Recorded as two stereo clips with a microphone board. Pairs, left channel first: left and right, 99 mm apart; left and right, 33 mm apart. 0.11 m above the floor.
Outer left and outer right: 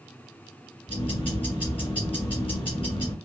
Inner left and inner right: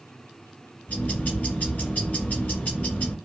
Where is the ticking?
60° left (ahead or behind), 1.8 m.